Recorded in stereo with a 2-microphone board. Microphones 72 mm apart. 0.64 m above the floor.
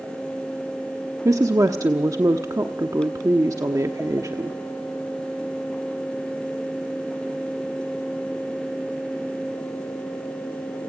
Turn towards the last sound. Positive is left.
turn(degrees=-50)  # may be behind; listen again after turning